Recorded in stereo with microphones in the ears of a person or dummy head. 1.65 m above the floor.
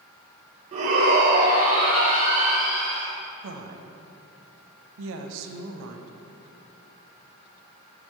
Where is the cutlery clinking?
I don't hear cutlery clinking.